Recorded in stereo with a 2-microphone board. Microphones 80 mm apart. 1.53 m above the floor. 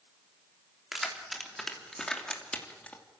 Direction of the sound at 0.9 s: 5° right (ahead or behind).